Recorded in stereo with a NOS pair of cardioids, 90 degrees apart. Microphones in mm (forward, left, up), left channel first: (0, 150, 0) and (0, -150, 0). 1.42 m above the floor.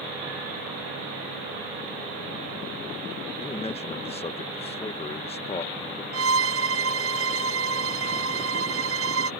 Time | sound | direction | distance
3.4 | a man speaking | 20° left | ?
6.1 | a violin | 50° right | ?